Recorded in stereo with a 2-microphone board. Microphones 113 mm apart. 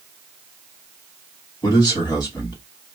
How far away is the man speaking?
About 1.8 m.